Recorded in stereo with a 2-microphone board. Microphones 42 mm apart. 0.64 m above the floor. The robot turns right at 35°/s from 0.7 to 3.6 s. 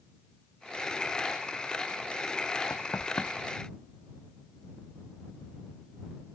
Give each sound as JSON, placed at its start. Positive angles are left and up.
{"t": 2.7, "sound": "knocking", "side_deg": 55}